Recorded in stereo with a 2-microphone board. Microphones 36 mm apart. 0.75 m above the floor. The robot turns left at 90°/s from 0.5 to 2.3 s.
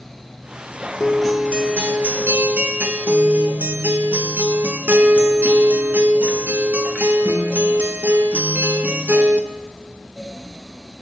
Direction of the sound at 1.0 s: 20° left.